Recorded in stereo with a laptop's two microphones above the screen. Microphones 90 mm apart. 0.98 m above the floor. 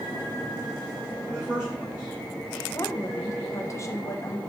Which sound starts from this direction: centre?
A man speaking, at 1.3 s.